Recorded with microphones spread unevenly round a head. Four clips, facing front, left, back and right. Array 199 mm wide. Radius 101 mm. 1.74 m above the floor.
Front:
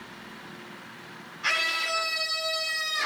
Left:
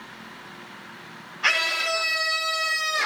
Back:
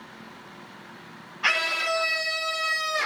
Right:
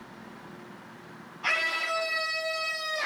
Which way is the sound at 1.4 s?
105° left.